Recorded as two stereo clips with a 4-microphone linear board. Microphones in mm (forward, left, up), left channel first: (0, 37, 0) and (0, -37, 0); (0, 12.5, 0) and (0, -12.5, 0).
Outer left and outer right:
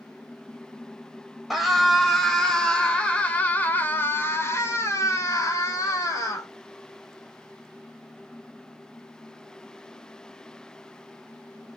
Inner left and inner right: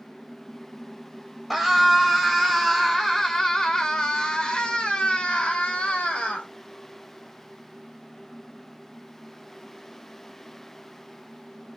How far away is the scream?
About 2 m.